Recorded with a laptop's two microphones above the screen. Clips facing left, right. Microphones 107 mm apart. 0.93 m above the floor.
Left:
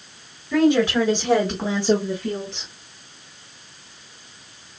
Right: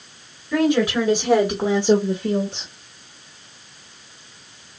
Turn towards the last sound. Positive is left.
turn(degrees=-35)  # may be behind; listen again after turning